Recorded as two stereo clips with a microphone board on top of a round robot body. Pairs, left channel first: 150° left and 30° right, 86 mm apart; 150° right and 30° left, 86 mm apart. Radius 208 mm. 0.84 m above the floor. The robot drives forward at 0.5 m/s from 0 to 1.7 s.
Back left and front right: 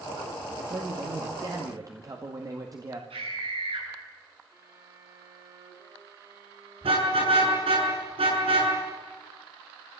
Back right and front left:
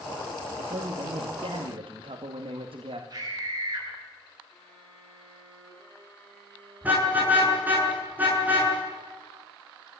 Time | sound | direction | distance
0.6 | a man speaking | 15° left | 2.5 m
3.1 | a scream | 20° right | 9.5 m
4.5 | a violin | 80° right | 6.5 m
6.8 | a car horn | 45° right | 7 m